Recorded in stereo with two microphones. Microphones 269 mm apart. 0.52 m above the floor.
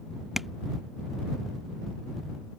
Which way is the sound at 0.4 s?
Centre (ahead or behind).